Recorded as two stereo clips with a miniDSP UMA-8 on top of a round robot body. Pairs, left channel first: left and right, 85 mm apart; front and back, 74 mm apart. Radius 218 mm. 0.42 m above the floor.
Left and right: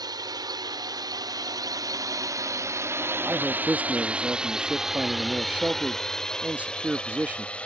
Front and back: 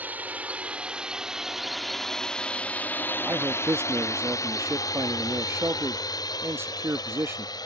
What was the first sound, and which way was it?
A drone, 115° right.